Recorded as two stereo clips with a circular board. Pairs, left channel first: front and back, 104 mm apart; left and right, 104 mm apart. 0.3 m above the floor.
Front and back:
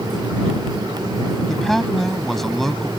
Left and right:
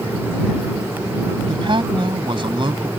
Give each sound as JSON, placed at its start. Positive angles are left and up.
{"t": 1.5, "sound": "a man speaking", "azimuth_deg": -85}